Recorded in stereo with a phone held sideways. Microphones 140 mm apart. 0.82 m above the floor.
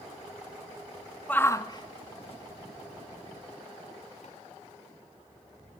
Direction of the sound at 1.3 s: 10° left (ahead or behind).